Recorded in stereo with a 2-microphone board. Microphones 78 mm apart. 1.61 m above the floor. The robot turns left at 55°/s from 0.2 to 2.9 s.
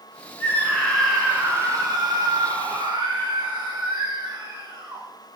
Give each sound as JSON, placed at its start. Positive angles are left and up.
{"t": 0.4, "sound": "a scream", "azimuth_deg": 35, "distance_m": 6.5}